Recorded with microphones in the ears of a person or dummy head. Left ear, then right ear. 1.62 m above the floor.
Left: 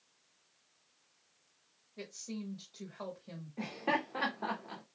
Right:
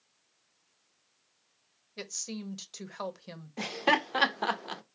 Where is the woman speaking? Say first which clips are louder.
Right 6 dB; 70° right (ahead or behind), 0.8 m.